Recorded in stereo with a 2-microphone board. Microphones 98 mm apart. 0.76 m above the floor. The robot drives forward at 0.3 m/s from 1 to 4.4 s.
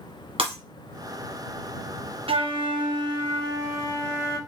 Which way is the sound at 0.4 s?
70° right (ahead or behind).